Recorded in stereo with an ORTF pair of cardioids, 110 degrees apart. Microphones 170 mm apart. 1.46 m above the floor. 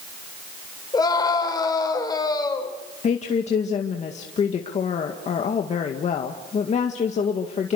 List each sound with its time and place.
0.9 s a scream: 25° left, 6 m
3.0 s a woman speaking: 45° left, 2 m